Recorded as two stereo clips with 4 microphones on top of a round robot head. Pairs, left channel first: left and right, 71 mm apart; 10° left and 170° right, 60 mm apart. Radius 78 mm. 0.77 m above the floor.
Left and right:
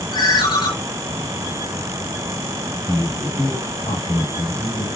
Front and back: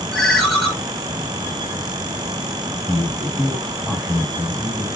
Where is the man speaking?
100° left, 8 m.